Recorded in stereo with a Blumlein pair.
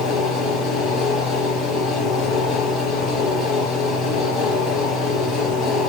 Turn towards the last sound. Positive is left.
turn(degrees=30)